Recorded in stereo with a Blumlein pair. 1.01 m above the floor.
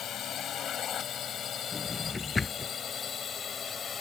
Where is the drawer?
10° left.